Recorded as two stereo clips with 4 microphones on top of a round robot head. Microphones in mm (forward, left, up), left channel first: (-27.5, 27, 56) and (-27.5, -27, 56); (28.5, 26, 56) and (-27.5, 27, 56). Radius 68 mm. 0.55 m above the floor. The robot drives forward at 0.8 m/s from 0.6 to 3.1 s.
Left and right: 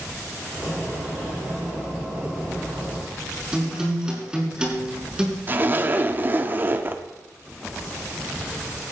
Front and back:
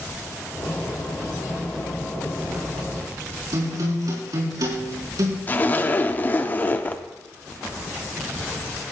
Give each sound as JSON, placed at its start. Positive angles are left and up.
{"t": 3.5, "sound": "a guitar", "azimuth_deg": -165, "distance_m": 6.0}
{"t": 5.5, "sound": "a zipper", "azimuth_deg": -50, "distance_m": 1.0}